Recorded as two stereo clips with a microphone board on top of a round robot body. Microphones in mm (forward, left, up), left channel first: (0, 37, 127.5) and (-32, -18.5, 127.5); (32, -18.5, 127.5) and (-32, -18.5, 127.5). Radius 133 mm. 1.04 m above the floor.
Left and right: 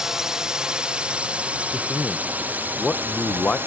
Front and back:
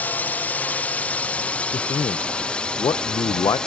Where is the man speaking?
15° right.